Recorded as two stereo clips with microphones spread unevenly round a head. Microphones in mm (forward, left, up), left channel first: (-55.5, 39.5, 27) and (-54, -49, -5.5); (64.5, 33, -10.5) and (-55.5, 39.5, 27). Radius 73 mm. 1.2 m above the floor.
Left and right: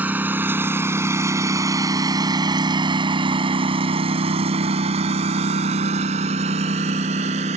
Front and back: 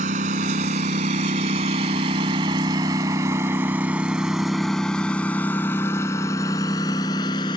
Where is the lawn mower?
165° right; by 7.6 s 70° right.